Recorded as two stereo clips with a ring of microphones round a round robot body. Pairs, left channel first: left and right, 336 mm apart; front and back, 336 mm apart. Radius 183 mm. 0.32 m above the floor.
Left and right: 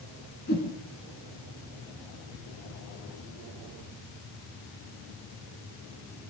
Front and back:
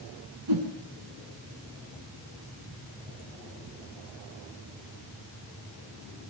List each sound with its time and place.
0.5 s a whoosh: 155° left, 3.5 m